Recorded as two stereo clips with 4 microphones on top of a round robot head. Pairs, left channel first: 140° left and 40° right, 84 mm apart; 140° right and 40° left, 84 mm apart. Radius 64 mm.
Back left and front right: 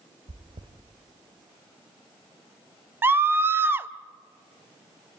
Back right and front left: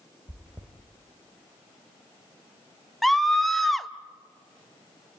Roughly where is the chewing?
Ahead right.